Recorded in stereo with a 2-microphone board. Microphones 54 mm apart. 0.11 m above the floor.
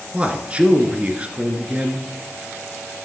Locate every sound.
0.1 s a man speaking: 20° right (ahead or behind), 1.6 m